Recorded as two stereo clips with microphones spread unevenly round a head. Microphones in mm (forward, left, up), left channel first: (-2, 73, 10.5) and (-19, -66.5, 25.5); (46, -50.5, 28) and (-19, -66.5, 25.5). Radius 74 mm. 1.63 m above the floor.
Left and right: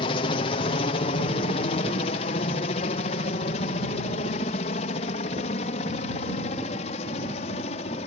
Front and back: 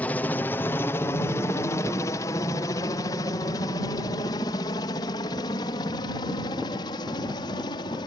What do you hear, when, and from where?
0.0 s a helicopter: 75° left; by 8.1 s 35° left